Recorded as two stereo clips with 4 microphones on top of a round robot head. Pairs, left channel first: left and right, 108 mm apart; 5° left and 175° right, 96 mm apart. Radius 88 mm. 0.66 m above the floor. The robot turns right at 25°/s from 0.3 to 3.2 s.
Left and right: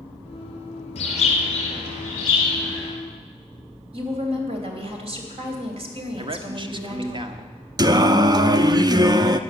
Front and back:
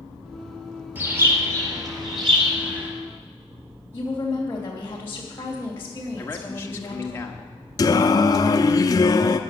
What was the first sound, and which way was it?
A bird, 115° left.